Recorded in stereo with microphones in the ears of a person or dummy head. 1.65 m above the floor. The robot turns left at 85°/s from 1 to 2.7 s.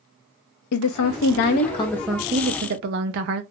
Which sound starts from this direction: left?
A woman speaking, at 0.7 s.